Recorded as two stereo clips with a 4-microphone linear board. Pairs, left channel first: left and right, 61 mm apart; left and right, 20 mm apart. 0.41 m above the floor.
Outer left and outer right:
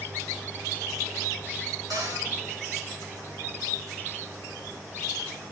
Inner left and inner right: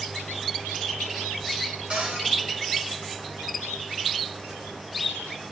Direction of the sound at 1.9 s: 70° right (ahead or behind).